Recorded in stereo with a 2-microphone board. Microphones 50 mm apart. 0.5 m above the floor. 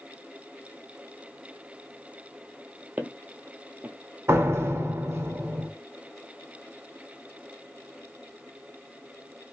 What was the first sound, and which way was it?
Footsteps, 35° right (ahead or behind).